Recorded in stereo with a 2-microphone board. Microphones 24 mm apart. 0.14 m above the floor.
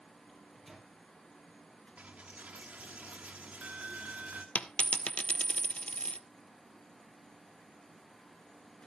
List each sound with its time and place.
0.3 s a microwave: centre (ahead or behind), 3.5 m
2.0 s a dropped coin: 80° right, 1.5 m
4.5 s a dropped coin: 65° left (ahead or behind), 0.6 m